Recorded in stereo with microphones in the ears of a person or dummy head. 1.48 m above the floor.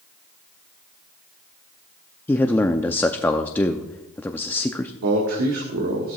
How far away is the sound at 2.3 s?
About 0.6 m.